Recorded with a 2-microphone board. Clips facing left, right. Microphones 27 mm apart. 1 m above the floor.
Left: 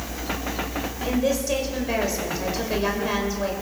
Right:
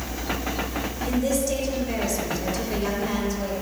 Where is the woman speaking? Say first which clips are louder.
Left 1 dB; 25° left (ahead or behind), 5 m.